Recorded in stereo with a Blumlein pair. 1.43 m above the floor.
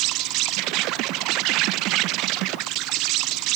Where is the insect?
40° right.